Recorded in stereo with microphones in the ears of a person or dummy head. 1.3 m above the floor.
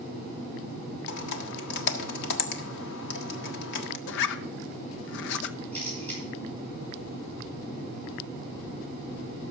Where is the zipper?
70° left (ahead or behind), 0.8 m.